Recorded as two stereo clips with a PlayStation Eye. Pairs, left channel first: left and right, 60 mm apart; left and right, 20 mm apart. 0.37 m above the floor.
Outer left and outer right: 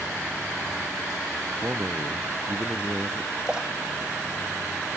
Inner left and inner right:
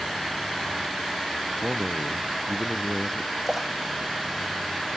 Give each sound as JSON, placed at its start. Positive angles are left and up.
{"t": 1.6, "sound": "a man speaking", "side_deg": -35}
{"t": 3.5, "sound": "a splash", "side_deg": -10}